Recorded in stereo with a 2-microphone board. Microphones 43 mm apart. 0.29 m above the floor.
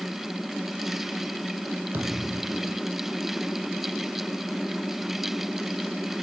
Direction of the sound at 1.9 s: 65° right (ahead or behind).